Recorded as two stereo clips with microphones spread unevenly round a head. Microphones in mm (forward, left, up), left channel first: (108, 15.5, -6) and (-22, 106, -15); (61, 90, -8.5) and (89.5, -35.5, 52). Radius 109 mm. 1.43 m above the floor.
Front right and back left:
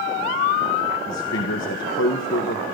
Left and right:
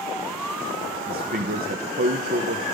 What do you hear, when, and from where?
1.1 s a man speaking: 60° right, 1.7 m